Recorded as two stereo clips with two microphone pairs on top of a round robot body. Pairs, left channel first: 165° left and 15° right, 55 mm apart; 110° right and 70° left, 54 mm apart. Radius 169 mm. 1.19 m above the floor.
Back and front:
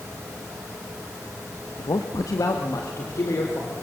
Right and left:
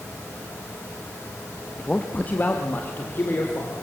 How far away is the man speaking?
About 1.2 m.